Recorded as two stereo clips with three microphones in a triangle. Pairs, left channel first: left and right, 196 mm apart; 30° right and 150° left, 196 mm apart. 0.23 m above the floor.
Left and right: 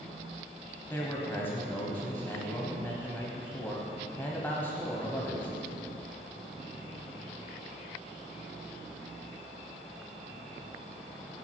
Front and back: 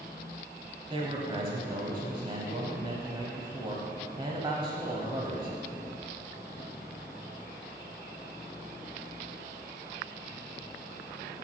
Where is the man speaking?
155° left, 1.0 m.